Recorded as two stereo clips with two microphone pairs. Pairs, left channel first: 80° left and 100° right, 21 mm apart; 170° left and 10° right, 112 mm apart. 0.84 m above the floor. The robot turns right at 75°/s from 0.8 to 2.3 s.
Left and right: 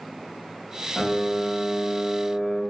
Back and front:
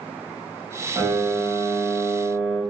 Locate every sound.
1.0 s a piano: 50° left, 1.9 m; by 2.6 s 150° left, 1.9 m